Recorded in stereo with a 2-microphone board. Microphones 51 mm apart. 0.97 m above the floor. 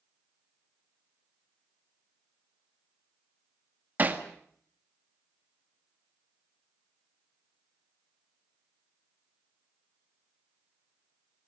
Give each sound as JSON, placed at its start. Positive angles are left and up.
{"t": 4.0, "sound": "hammering", "side_deg": -35, "distance_m": 1.7}